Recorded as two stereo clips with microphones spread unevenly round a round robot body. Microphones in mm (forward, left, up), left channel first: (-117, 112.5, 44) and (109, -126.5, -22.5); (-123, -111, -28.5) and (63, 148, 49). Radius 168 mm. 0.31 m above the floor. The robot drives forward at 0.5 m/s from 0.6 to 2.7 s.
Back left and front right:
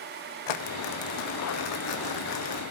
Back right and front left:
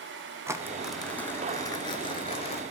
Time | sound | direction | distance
0.5 | crumpling | 140° left | 0.7 m